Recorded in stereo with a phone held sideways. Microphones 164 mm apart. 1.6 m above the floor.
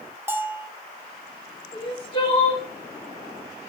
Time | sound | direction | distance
0.3 | a bell | 15° right (ahead or behind) | 1.5 m
1.7 | crying | 30° left (ahead or behind) | 4 m